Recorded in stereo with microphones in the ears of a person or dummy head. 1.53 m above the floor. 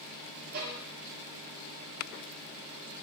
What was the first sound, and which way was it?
A violin, 60° right (ahead or behind).